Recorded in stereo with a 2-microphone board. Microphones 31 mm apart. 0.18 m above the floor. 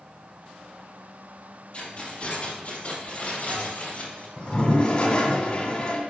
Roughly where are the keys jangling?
Left.